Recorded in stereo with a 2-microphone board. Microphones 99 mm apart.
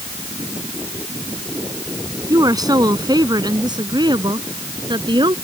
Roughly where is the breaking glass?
No breaking glass in this recording.